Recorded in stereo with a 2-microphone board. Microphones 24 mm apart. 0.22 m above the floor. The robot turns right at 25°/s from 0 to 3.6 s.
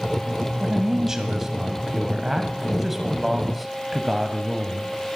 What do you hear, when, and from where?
0.6 s a man speaking: 25° right (ahead or behind), 1.0 m; by 4.9 s 5° right (ahead or behind), 1.0 m